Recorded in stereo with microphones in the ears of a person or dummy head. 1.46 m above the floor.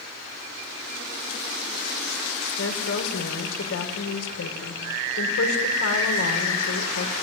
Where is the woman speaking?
90° left, 5.5 m.